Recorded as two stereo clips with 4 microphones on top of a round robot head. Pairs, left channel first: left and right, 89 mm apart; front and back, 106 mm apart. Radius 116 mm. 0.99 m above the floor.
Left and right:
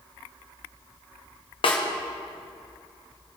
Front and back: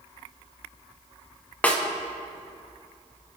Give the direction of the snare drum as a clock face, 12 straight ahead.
10 o'clock.